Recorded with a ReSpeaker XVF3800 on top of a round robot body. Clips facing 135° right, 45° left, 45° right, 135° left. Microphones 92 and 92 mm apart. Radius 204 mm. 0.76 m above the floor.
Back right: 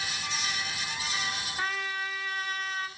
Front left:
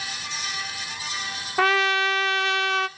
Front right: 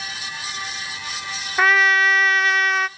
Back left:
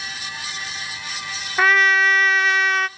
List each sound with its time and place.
1.6 s a trumpet: 45° left, 0.6 m